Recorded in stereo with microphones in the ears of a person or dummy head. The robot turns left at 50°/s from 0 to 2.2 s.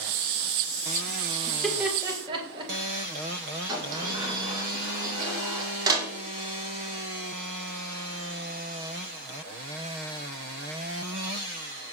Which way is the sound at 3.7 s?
20° right (ahead or behind).